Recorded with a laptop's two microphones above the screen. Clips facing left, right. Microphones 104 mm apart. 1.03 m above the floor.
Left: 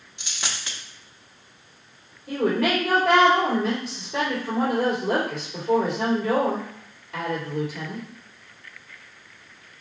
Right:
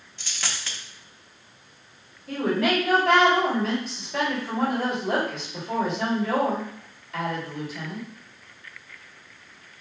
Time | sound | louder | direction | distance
0.2 | a dropped coin | even | 15° left (ahead or behind) | 0.5 m
2.3 | a woman speaking | left 1 dB | 65° left (ahead or behind) | 2.5 m